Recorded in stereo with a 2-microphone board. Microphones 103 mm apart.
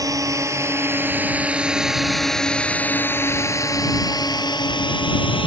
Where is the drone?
35° right (ahead or behind); by 5.5 s 55° left (ahead or behind).